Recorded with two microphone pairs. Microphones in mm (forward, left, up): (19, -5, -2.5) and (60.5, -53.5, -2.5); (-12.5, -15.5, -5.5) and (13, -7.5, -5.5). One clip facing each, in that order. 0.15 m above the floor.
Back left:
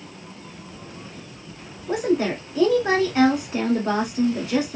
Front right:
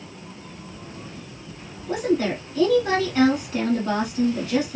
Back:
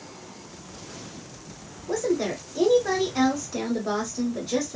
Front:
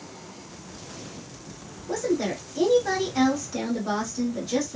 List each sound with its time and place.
1.9 s a woman speaking: 125° left, 1.4 m